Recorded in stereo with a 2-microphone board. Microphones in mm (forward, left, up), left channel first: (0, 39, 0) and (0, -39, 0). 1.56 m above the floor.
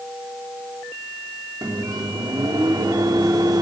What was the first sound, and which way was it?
A microwave, 60° right (ahead or behind).